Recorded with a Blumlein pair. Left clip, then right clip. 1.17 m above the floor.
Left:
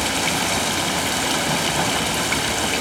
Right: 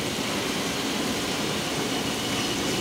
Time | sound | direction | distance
0.0 | running water | 45° left | 1.4 m